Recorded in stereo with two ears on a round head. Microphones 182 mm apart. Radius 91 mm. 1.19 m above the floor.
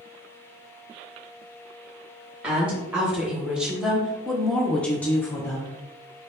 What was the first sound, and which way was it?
A woman speaking, 5° right (ahead or behind).